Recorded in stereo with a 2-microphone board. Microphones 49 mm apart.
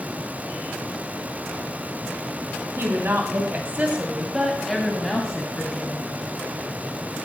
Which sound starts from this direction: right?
A woman speaking, at 2.8 s.